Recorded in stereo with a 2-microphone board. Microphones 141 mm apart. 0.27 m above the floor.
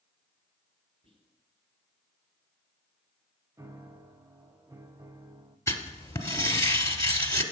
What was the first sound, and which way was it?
Whispering, 45° right (ahead or behind).